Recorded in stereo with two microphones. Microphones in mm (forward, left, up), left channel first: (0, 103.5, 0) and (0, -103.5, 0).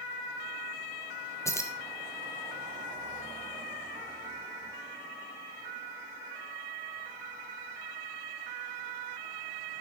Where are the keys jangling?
15° left (ahead or behind), 1.2 m.